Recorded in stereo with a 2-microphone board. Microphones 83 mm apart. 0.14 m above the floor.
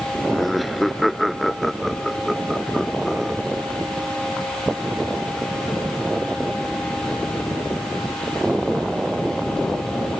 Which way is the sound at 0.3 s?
Centre (ahead or behind).